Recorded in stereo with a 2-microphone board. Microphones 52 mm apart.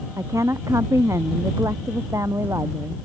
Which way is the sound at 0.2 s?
80° right.